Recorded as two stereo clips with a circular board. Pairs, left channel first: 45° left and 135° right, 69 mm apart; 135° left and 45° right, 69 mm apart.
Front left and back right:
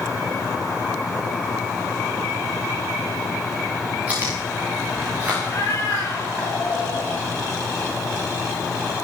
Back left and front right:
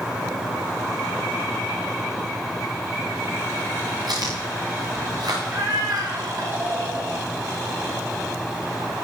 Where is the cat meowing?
Straight ahead, 4.5 m.